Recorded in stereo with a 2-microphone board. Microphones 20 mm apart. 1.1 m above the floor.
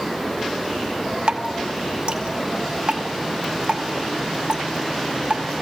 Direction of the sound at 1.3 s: 55° right (ahead or behind).